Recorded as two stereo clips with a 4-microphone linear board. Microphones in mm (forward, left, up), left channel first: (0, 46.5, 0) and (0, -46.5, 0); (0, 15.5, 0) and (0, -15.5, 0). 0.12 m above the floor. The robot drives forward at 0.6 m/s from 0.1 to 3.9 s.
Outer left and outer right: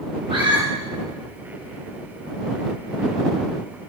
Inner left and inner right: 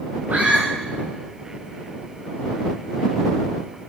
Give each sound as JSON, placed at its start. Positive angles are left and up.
{"t": 0.3, "sound": "a scream", "side_deg": -75, "distance_m": 5.0}